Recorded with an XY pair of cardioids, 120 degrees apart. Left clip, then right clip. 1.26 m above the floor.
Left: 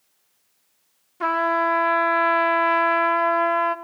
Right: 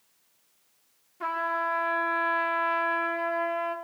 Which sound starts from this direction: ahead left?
A trumpet, at 1.2 s.